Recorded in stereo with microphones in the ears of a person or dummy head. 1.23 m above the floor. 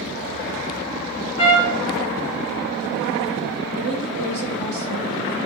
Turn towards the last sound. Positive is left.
turn(degrees=-35)  # may be behind; listen again after turning